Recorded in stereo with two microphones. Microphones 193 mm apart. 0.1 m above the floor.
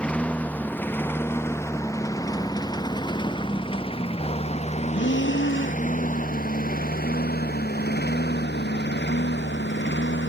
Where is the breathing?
85° left.